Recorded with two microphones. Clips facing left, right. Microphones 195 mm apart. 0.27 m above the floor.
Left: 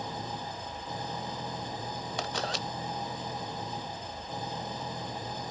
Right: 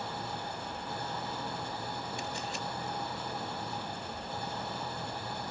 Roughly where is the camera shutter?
Left.